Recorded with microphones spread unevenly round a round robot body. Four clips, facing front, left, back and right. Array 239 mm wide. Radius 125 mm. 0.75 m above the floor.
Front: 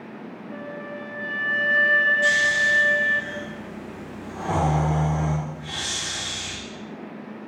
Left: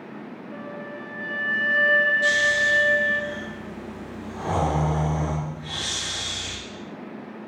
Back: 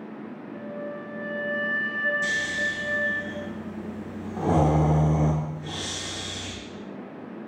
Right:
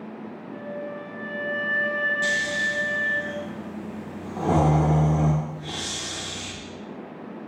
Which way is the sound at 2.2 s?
150° right.